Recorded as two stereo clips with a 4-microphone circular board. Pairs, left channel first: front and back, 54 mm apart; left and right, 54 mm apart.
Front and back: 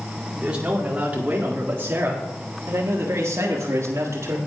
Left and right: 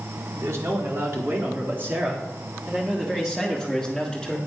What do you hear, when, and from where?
0.3 s a man speaking: 110° right, 2.5 m; by 4.4 s 175° left, 1.9 m